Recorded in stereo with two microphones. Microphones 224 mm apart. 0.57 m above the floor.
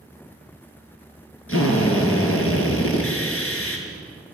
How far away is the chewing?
No chewing in this recording.